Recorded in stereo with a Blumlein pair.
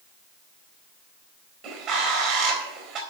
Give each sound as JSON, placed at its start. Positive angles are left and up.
{"t": 1.6, "sound": "a bird", "azimuth_deg": -35, "distance_m": 3.5}